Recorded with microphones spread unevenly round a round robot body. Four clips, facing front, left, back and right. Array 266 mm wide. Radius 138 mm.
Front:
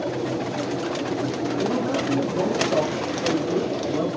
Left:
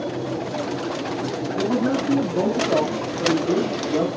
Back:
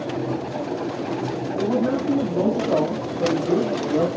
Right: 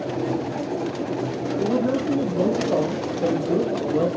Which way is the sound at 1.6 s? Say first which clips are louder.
Even, back 4 dB; 120° left.